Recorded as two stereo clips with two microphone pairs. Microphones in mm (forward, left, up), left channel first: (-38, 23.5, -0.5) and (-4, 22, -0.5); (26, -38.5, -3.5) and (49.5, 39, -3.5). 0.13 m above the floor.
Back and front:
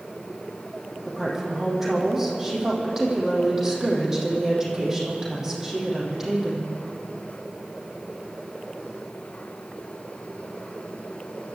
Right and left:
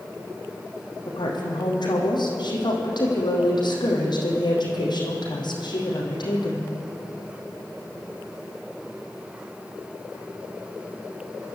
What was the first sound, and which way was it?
A woman speaking, 80° right.